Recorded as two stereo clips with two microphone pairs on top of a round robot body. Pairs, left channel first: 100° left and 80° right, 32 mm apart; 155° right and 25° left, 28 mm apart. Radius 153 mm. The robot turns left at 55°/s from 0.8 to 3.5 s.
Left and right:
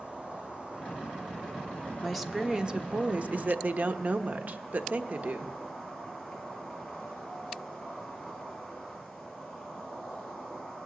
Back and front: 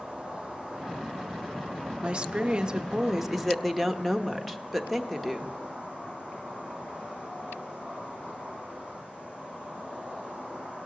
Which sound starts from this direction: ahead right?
An insect, at 0.0 s.